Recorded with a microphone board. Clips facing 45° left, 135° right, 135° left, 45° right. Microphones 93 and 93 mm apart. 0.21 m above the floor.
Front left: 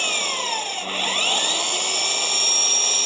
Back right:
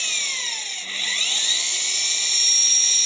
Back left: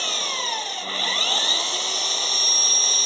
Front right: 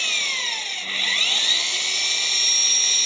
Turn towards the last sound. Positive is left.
turn(degrees=80)